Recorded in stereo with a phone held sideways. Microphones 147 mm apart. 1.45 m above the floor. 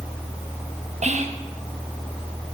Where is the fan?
Centre (ahead or behind), 3.5 m.